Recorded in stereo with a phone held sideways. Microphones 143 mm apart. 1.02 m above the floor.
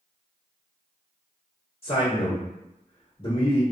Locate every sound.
1.8 s a man speaking: 40° left (ahead or behind), 1.2 m